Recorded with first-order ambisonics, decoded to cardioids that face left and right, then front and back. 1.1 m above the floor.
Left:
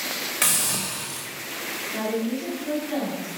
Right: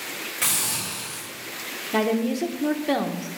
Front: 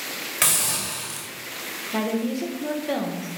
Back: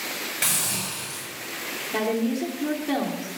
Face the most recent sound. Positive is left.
turn(degrees=-85)